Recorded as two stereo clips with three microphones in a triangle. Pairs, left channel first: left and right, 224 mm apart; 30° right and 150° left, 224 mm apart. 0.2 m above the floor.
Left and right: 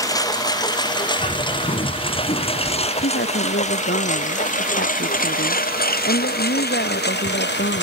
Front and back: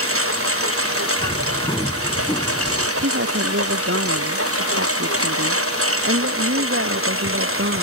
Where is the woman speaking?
130° left.